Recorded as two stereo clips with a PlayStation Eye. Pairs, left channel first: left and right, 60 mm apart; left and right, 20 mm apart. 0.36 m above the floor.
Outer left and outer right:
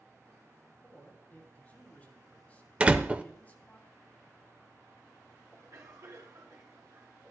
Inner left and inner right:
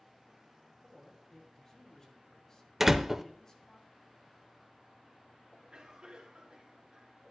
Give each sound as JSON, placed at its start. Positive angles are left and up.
{"t": 0.8, "sound": "a man speaking", "side_deg": 25, "distance_m": 3.0}
{"t": 2.8, "sound": "a door slam", "side_deg": -20, "distance_m": 0.6}
{"t": 5.5, "sound": "a cough", "side_deg": -60, "distance_m": 4.5}